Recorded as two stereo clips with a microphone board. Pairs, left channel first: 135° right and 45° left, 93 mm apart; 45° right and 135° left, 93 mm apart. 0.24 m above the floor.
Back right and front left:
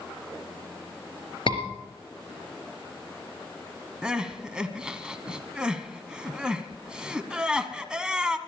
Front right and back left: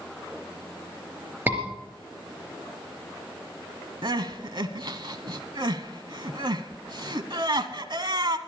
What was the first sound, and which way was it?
A scream, 155° right.